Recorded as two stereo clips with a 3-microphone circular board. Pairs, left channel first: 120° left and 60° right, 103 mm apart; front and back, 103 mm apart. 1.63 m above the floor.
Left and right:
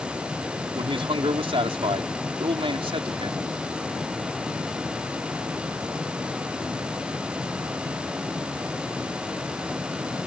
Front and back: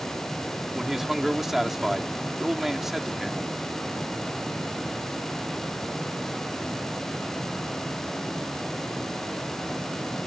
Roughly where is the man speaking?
Right.